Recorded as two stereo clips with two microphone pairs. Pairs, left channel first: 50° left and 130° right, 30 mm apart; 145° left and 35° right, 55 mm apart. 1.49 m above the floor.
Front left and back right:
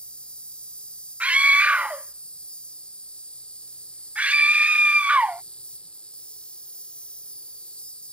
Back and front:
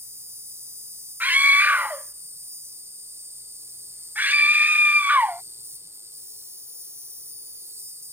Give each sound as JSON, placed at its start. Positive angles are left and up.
{"t": 0.0, "sound": "an insect", "azimuth_deg": 0}
{"t": 1.2, "sound": "a scream", "azimuth_deg": -90}